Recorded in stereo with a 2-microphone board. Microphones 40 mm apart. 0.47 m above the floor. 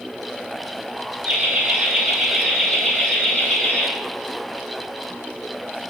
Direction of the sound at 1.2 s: 30° right (ahead or behind).